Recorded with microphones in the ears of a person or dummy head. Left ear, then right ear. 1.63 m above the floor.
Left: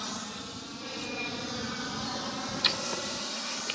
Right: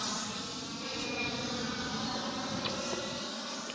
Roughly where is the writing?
Left.